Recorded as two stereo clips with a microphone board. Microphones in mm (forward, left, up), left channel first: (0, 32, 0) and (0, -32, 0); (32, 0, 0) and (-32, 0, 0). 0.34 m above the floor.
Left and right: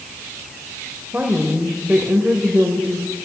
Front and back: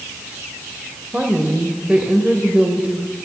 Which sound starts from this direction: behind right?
A woman speaking, at 1.1 s.